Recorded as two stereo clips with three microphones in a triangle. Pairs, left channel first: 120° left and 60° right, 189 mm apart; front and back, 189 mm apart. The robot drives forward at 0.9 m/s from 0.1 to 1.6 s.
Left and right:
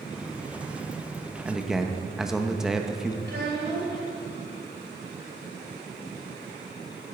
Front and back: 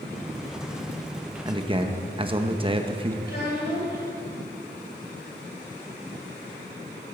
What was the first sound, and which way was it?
A man speaking, 130° right.